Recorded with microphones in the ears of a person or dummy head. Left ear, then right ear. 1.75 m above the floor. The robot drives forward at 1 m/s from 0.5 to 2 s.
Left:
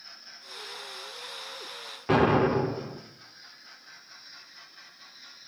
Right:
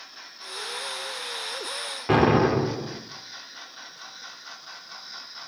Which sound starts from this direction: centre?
An explosion, at 2.1 s.